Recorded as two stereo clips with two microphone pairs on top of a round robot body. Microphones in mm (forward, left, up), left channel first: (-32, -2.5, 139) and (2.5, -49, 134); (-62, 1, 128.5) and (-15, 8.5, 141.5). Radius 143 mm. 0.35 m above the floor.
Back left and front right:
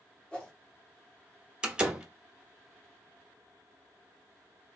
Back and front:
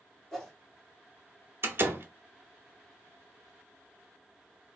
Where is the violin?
I don't hear a violin.